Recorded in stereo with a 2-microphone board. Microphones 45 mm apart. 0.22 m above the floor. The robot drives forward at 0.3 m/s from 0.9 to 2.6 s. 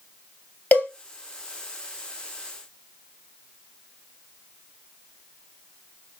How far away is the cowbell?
About 0.9 m.